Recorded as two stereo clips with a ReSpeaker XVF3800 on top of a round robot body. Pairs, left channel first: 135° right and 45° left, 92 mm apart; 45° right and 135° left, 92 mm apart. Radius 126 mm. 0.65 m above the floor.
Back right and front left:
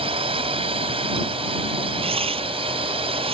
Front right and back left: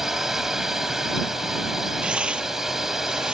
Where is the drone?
50° left.